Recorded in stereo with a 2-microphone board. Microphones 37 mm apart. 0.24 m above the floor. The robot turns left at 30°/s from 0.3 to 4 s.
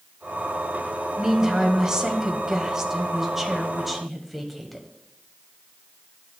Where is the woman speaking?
20° right (ahead or behind), 1.0 m; by 4.9 s centre (ahead or behind), 1.0 m.